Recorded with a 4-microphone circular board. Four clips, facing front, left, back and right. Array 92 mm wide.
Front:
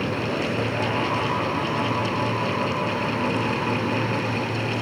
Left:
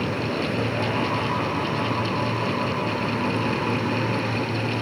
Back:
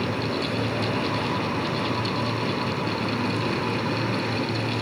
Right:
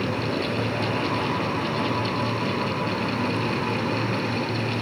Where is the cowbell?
No cowbell in this recording.